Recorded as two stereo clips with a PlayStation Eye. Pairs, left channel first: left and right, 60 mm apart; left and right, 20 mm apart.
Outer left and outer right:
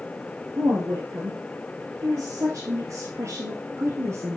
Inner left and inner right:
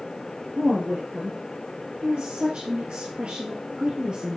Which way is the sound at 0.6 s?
55° right (ahead or behind).